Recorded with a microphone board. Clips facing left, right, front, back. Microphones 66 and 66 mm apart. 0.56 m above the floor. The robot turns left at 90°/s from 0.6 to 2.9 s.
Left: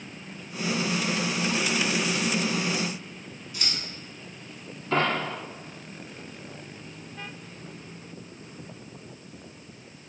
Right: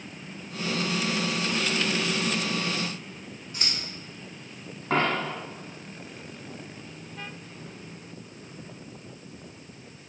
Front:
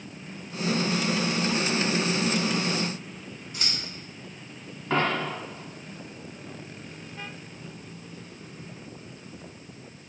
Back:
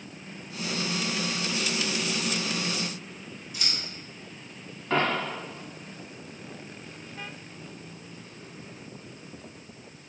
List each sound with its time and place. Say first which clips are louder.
3.5 s scissors: even, front 1 dB; 45° right, 1.2 m
4.9 s a dropped coin: even, even; 85° right, 1.8 m